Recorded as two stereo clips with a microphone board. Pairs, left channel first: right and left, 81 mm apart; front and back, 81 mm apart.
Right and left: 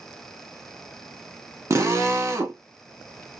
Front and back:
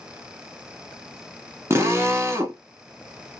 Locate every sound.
1.7 s a drill: 130° left, 1.1 m